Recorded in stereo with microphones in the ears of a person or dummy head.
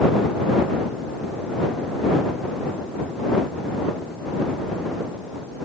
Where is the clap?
I don't hear a clap.